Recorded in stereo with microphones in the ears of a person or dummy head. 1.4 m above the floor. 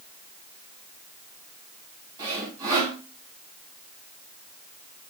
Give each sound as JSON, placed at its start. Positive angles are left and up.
{"t": 2.2, "sound": "sawing", "side_deg": -20, "distance_m": 1.2}